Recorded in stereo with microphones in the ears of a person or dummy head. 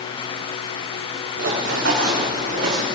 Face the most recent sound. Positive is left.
turn(degrees=-55)  # may be behind; listen again after turning